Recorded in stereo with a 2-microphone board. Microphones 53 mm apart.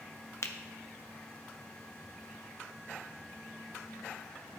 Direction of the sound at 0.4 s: 60° left (ahead or behind).